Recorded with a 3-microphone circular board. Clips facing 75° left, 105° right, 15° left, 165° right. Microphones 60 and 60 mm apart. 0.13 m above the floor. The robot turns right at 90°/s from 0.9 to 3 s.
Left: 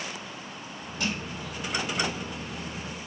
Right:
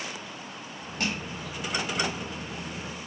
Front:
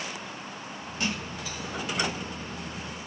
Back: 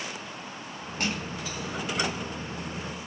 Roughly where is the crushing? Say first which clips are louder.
Even, even; behind right.